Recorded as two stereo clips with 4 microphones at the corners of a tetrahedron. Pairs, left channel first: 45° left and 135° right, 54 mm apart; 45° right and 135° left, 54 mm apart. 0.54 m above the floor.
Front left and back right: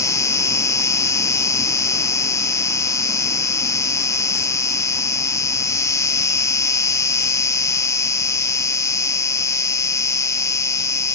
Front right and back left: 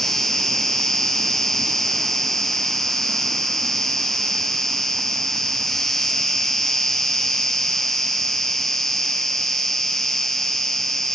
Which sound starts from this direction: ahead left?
An insect, at 0.0 s.